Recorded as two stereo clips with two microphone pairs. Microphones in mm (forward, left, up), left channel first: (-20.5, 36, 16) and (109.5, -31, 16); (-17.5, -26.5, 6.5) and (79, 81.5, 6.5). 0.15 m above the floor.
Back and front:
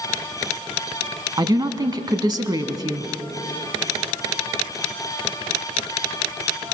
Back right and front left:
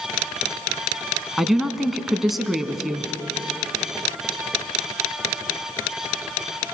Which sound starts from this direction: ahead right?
A woman speaking, at 1.4 s.